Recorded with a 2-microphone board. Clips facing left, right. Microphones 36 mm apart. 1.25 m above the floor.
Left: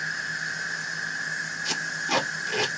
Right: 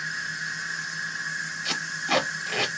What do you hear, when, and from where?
0.0 s an insect: centre (ahead or behind), 1.6 m
1.6 s tape being pulled: 35° right (ahead or behind), 1.5 m